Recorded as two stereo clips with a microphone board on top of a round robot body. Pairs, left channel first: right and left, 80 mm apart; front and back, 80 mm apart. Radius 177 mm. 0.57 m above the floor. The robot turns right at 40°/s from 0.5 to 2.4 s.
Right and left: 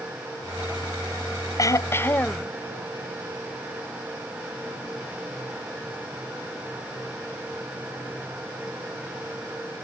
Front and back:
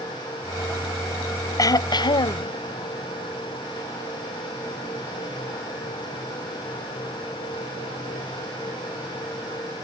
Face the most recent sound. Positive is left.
turn(degrees=-10)